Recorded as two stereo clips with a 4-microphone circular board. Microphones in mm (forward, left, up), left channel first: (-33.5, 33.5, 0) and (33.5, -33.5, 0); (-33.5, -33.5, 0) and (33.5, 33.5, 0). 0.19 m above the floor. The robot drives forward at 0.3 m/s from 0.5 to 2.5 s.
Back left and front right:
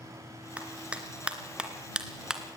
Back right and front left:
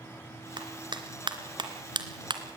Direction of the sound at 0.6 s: 30° left.